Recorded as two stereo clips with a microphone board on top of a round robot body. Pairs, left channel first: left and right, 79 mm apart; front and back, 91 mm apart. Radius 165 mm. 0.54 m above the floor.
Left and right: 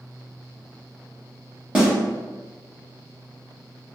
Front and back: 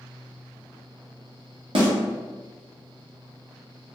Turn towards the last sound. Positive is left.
turn(degrees=-165)